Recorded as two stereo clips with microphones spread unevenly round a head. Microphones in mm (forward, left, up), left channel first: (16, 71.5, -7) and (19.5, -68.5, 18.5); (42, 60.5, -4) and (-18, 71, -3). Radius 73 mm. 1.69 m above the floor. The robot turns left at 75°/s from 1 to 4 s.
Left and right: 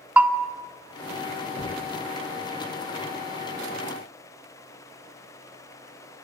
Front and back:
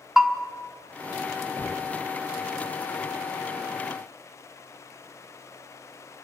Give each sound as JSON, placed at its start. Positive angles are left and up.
{"t": 0.2, "sound": "a bell", "azimuth_deg": -120, "distance_m": 1.3}
{"t": 1.6, "sound": "knocking", "azimuth_deg": 45, "distance_m": 0.7}